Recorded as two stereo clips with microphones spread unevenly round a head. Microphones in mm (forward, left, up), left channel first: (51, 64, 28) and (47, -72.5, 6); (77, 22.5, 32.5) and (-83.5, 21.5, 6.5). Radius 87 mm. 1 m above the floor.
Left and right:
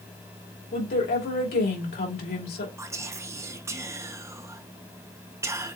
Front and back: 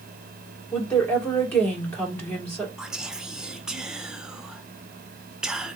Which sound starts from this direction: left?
A woman speaking, at 0.7 s.